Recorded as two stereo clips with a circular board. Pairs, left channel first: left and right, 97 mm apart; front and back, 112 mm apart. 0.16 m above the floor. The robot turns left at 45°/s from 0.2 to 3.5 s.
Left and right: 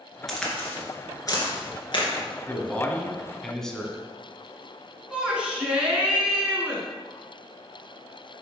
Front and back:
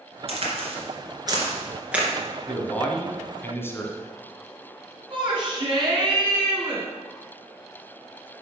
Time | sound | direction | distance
0.3 | a crack | straight behind | 2.5 m
2.5 | a man speaking | 60° left | 1.2 m
5.1 | a shout | 165° right | 2 m